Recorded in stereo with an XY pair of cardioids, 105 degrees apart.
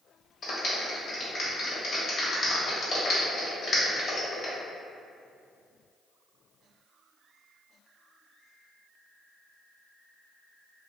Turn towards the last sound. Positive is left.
turn(degrees=50)